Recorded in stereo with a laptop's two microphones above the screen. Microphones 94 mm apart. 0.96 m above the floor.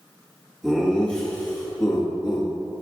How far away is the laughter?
About 1.5 m.